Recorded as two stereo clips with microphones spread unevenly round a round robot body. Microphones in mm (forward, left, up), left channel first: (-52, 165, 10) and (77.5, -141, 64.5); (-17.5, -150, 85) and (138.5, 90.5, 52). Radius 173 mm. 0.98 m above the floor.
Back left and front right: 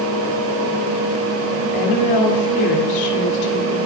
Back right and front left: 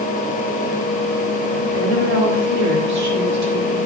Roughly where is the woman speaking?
Left.